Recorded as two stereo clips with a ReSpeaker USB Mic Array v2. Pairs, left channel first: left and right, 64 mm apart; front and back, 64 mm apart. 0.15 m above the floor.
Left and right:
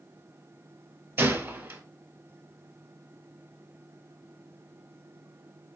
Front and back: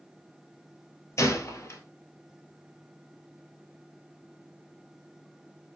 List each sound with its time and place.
1.2 s a gunshot: 40° right, 0.9 m